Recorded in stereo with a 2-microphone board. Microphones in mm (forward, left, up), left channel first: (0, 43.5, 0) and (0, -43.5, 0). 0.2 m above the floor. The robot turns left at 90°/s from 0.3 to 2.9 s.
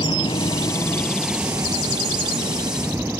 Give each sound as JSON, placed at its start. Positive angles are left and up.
{"t": 0.0, "sound": "a helicopter", "azimuth_deg": 80}